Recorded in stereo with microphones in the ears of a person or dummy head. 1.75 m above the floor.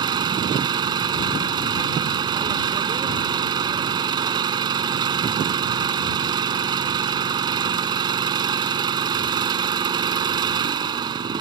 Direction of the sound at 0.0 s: 30° right (ahead or behind).